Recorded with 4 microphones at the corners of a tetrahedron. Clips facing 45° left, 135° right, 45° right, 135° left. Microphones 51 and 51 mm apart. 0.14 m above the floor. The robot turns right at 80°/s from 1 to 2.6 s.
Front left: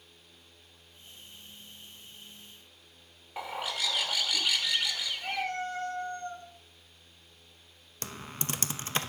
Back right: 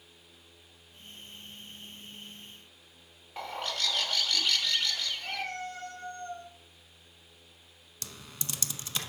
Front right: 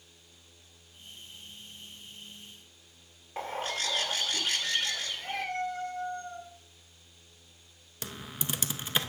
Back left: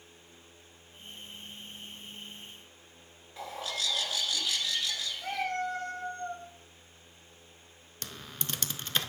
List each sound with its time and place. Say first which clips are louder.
3.4 s a bird: even, front right 3 dB; 35° right, 1.0 m
5.2 s a cat meowing: front left 3 dB, back left 2 dB; 105° left, 2.5 m
8.0 s typing on a keyboard: front left 6 dB, front right 3 dB; 30° left, 0.6 m